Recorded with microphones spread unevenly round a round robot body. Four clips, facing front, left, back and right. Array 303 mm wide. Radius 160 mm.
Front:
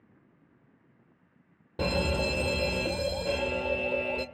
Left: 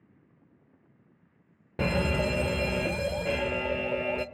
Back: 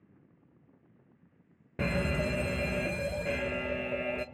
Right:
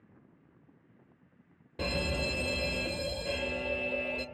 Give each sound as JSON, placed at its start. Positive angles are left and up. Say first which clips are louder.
{"t": 1.8, "sound": "a fire alarm", "louder": "left 6 dB, front 3 dB", "azimuth_deg": 90, "distance_m": 1.6}